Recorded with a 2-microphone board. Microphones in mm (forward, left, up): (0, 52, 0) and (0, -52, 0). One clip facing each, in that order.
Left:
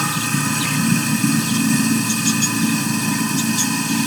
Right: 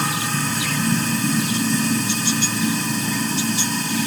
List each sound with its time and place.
0.0 s running water: 80° left, 2 m